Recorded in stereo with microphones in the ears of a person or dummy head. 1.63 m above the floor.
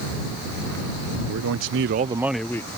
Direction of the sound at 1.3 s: 75° right (ahead or behind).